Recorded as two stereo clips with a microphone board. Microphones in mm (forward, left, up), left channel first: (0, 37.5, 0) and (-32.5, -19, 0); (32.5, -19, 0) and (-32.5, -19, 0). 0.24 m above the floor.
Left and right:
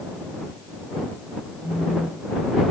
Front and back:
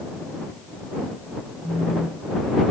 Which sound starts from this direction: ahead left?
A phone buzzing, at 1.6 s.